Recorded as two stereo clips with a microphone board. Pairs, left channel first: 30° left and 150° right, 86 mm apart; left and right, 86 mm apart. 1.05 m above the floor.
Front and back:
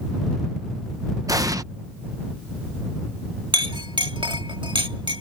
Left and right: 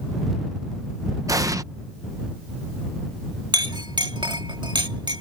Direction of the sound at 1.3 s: 120° right.